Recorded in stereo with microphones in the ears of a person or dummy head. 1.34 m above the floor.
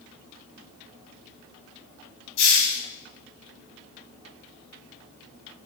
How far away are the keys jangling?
No keys jangling in this recording.